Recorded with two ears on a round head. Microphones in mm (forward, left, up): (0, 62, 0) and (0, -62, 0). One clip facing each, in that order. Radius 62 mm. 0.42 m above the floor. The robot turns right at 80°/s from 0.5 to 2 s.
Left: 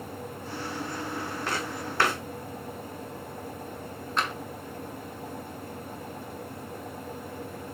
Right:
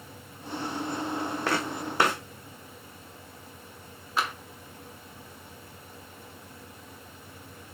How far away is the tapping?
About 1.1 m.